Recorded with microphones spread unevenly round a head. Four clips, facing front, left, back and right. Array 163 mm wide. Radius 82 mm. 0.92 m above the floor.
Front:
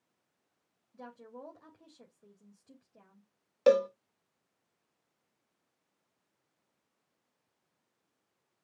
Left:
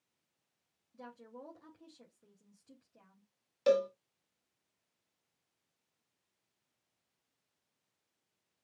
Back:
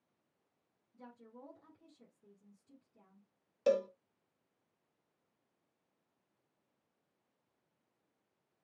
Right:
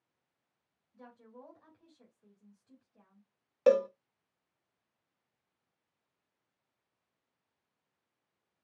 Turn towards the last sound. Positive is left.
turn(degrees=-40)